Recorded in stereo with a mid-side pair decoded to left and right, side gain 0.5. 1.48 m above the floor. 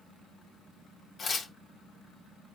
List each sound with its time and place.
1.2 s tearing paper: 35° left, 1.4 m